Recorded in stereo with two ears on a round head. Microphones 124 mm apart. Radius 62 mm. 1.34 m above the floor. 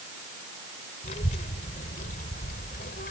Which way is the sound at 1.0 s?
55° left (ahead or behind).